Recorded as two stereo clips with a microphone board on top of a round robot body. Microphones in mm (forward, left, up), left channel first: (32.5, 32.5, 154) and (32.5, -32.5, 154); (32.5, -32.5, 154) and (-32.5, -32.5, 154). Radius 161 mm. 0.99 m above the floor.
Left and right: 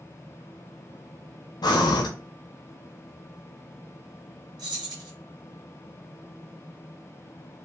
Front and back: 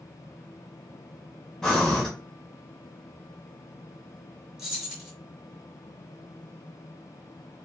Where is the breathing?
80° left, 0.5 m.